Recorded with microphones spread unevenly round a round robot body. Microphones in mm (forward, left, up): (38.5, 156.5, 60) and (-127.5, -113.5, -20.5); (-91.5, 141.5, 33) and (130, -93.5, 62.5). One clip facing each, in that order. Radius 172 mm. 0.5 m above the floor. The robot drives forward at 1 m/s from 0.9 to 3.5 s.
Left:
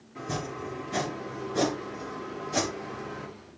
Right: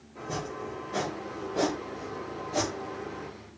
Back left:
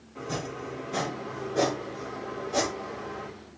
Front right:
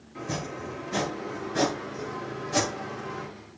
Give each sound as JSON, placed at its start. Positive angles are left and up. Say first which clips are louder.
{"t": 0.1, "sound": "chopping", "louder": "left 1 dB, even", "azimuth_deg": 0, "distance_m": 6.0}